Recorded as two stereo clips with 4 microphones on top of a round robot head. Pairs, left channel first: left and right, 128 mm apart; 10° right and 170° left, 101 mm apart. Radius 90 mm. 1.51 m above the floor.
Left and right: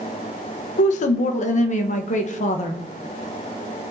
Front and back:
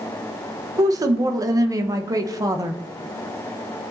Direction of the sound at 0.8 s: 115° left.